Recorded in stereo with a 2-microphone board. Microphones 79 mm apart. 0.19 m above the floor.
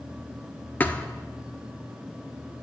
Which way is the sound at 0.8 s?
25° left (ahead or behind).